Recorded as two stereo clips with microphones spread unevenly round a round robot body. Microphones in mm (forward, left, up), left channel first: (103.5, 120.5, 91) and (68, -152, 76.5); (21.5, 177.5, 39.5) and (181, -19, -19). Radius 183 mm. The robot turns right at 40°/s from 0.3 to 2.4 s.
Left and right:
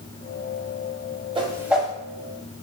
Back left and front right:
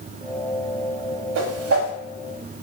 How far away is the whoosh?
About 0.8 m.